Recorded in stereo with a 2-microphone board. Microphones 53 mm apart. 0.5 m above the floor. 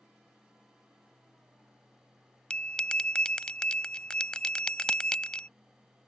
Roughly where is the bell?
Centre.